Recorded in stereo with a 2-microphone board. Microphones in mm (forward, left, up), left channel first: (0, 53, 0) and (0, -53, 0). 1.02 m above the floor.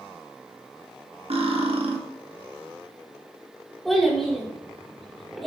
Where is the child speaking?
Centre (ahead or behind), 2.5 m.